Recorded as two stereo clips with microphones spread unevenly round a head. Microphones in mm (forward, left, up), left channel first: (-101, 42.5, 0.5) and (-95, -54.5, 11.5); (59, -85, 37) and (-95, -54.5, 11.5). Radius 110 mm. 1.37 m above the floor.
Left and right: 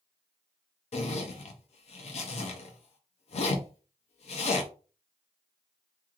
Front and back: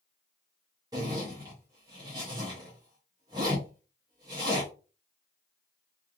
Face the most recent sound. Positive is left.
turn(degrees=95)